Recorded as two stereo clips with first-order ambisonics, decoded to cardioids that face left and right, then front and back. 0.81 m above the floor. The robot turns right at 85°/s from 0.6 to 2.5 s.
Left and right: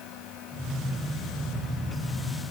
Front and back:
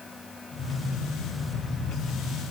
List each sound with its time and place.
Only background noise.